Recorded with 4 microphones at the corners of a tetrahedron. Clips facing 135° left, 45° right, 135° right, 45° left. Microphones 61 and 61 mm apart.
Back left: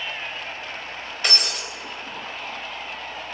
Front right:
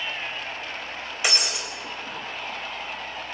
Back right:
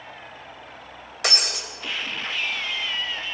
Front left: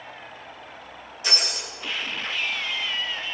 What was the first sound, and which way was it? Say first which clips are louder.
Breaking glass: even, back right 2 dB; 125° right.